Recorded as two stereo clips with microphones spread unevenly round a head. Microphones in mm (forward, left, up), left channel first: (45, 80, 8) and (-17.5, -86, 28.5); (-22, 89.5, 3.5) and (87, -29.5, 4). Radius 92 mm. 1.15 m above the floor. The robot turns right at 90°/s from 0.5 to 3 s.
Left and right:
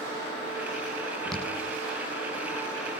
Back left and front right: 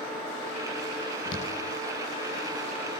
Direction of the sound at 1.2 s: 155° left.